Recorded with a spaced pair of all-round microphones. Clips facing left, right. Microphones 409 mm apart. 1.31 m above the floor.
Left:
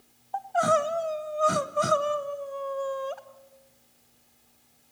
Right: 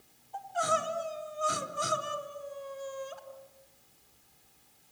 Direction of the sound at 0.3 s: 70° left (ahead or behind).